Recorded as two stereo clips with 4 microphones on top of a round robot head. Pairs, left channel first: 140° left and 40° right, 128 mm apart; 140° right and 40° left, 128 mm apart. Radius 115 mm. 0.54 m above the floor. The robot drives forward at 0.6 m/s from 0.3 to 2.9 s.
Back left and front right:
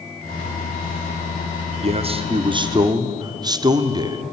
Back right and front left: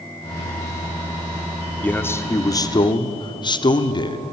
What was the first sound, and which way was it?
A man speaking, 65° right.